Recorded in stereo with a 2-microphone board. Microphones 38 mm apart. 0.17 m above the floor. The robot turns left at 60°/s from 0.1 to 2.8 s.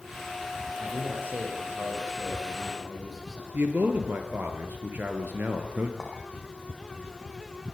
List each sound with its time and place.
0.8 s a man speaking: 50° right, 10 m; by 3.4 s 170° right, 10 m
3.5 s a man speaking: 60° right (ahead or behind), 3.5 m
6.0 s a clink: 10° left (ahead or behind), 6.5 m